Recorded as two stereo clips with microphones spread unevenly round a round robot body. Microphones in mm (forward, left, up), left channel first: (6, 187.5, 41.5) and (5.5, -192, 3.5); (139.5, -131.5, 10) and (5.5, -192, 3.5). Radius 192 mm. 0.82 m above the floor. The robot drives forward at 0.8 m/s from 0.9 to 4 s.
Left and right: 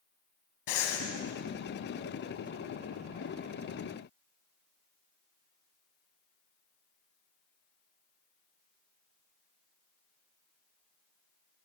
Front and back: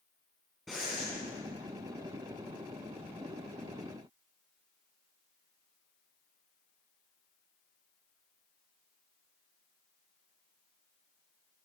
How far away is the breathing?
About 2.5 m.